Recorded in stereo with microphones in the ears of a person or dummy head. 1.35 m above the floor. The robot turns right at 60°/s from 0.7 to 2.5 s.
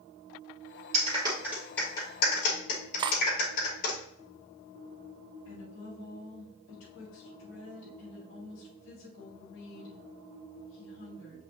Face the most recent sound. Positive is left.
turn(degrees=70)  # may be behind; listen again after turning